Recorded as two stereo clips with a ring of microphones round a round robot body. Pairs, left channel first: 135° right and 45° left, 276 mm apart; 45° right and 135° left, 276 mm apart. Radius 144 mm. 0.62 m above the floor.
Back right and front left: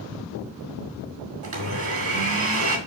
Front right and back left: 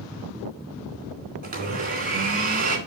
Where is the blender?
80° left, 2.5 m.